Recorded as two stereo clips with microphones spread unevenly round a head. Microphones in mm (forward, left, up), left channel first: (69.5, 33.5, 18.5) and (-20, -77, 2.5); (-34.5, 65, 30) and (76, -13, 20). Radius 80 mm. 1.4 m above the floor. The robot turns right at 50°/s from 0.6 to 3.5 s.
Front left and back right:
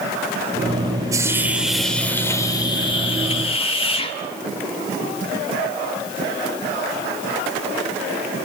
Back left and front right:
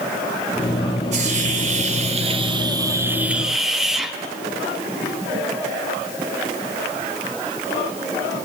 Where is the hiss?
65° right, 1.3 m; by 4.1 s 55° left, 1.3 m.